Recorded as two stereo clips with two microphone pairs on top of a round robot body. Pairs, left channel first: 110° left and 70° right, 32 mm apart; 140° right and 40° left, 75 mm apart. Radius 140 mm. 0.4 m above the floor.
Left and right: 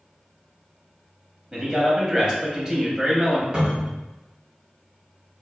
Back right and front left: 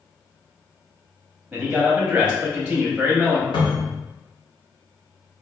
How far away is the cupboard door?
About 0.7 m.